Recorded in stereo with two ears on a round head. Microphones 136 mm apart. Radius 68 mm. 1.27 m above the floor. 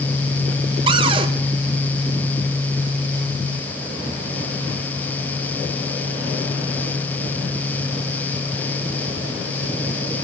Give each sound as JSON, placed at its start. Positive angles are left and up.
{"t": 0.9, "sound": "a cupboard door", "side_deg": -35, "distance_m": 1.4}